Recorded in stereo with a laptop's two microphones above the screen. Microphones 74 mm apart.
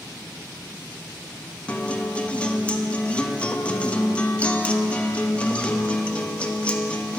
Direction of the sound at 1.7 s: 15° left (ahead or behind).